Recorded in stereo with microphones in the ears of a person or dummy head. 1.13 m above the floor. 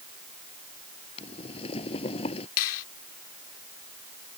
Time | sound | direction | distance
1.2 | boiling | 25° left (ahead or behind) | ?
2.6 | a finger snap | 65° left (ahead or behind) | ?